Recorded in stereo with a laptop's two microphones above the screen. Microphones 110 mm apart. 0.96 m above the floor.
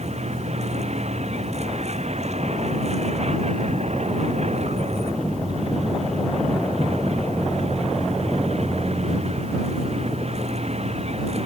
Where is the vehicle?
90° right; by 11.5 s 75° right (ahead or behind).